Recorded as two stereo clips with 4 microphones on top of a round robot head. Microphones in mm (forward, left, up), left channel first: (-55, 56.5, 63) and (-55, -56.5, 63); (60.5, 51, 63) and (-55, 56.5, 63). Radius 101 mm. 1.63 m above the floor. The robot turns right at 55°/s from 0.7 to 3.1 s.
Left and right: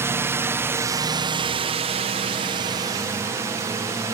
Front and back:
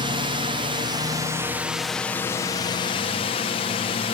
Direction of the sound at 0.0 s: 150° right.